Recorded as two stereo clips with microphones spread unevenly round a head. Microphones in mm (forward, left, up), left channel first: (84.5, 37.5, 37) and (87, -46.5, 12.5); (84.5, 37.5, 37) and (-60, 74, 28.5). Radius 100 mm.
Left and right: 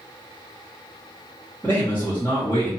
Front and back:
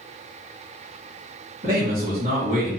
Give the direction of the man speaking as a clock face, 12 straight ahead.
6 o'clock.